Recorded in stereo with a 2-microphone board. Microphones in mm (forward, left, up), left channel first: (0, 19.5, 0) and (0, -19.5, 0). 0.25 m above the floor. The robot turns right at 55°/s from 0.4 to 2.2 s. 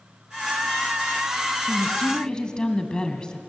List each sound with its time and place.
1.7 s a woman speaking: 40° left (ahead or behind), 2 m; by 3.4 s 20° left (ahead or behind), 2 m